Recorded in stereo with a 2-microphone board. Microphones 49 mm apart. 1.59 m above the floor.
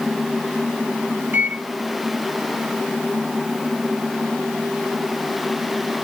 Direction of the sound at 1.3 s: 45° right (ahead or behind).